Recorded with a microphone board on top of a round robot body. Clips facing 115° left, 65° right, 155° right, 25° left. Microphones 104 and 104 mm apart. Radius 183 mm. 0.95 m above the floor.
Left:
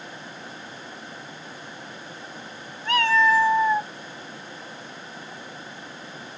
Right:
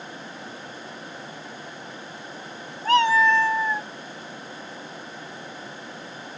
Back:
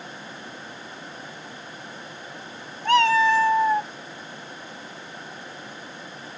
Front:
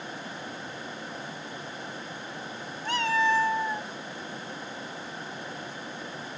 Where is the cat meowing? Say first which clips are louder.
Right 2 dB, back 8 dB; 120° right; by 3.9 s 175° left.